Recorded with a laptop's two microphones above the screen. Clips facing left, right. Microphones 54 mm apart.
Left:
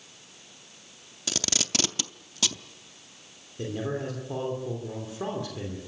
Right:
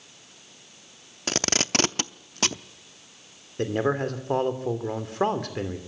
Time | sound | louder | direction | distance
1.3 | tape being pulled | right 6 dB | 45° right (ahead or behind) | 0.7 m
3.6 | a man speaking | right 7 dB | 65° right (ahead or behind) | 3 m